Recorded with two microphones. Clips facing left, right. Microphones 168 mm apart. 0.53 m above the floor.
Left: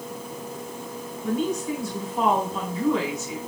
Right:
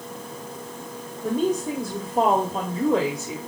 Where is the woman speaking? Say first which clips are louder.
Right 3 dB; 50° right (ahead or behind), 1.5 m.